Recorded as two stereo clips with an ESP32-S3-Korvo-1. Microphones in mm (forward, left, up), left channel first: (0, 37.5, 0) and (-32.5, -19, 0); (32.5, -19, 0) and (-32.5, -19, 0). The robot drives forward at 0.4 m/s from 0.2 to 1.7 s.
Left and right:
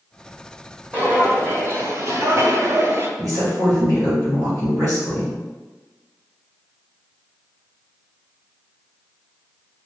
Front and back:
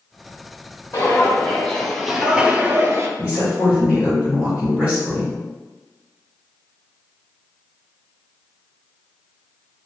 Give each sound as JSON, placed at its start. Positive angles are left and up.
{"t": 0.9, "sound": "footsteps", "azimuth_deg": -55, "distance_m": 1.3}
{"t": 3.2, "sound": "a woman speaking", "azimuth_deg": -110, "distance_m": 1.8}